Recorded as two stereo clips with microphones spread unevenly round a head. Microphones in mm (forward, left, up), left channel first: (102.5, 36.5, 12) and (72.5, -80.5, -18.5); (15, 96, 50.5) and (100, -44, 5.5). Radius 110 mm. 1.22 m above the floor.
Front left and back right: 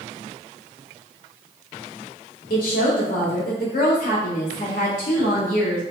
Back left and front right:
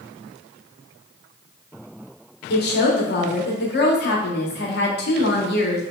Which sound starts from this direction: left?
A woman speaking, at 2.5 s.